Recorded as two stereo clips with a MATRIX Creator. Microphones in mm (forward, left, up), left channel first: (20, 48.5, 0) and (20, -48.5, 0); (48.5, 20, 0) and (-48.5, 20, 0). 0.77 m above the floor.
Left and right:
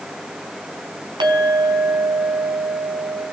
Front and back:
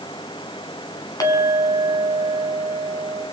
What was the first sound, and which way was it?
A clink, 50° right.